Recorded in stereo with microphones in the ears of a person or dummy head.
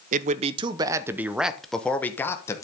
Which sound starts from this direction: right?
A man speaking, at 0.1 s.